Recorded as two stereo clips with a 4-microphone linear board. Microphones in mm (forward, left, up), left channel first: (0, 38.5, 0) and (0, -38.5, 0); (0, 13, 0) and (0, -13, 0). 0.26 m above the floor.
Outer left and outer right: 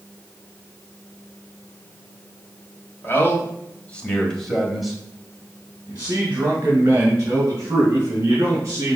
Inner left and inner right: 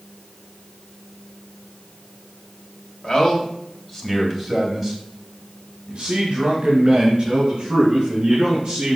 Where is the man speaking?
30° left (ahead or behind), 1.7 m; by 9.0 s 35° right (ahead or behind), 4 m.